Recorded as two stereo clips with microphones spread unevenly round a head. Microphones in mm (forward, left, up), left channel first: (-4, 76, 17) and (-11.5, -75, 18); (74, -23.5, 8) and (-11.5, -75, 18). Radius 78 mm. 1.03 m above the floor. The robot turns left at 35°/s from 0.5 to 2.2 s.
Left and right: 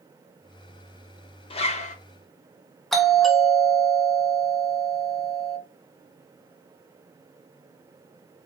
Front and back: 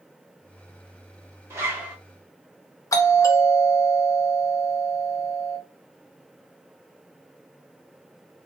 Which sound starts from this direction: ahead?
A doorbell, at 2.9 s.